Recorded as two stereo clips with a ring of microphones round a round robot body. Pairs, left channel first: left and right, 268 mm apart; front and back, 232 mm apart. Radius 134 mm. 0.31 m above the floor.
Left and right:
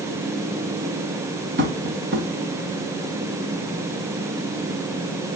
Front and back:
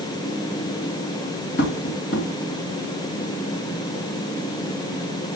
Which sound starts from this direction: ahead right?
Tapping, at 1.6 s.